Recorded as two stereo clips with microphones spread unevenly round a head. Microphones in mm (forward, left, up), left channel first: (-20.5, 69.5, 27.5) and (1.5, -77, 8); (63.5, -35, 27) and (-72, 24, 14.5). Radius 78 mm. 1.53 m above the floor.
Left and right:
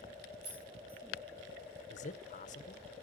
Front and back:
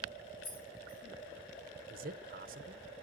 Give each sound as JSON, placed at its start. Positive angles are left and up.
{"t": 0.4, "sound": "keys jangling", "azimuth_deg": -55, "distance_m": 7.5}
{"t": 1.9, "sound": "a man speaking", "azimuth_deg": 125, "distance_m": 0.7}